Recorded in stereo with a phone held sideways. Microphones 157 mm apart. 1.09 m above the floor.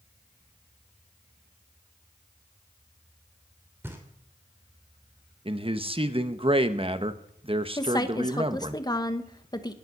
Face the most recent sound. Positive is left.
turn(degrees=25)  # may be behind; listen again after turning